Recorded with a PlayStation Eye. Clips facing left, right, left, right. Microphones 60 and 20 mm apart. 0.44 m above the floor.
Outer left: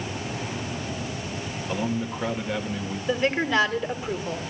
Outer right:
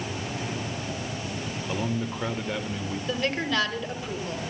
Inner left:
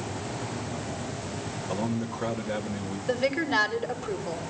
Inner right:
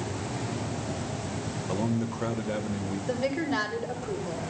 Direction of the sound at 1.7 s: Centre (ahead or behind).